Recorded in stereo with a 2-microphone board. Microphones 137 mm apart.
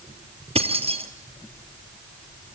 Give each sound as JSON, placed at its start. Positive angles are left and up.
{"t": 0.6, "sound": "keys jangling", "side_deg": -45, "distance_m": 2.0}